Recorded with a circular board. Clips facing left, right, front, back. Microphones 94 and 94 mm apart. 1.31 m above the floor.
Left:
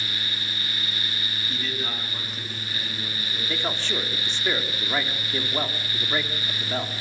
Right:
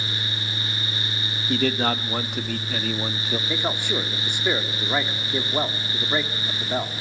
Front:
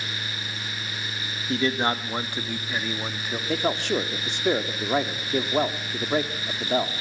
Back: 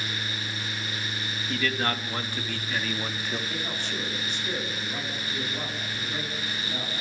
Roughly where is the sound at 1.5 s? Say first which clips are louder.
Right 12 dB, front 4 dB; ahead right.